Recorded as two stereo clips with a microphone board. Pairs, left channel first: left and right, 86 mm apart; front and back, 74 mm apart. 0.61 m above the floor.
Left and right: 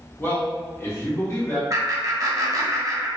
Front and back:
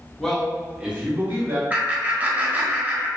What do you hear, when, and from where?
0.2 s a man speaking: 65° left, 0.9 m; by 1.6 s 140° left, 1.3 m
1.7 s laughter: 120° right, 0.8 m